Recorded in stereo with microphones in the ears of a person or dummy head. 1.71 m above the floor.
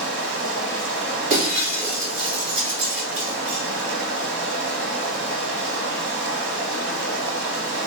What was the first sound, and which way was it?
Running water, 55° right (ahead or behind).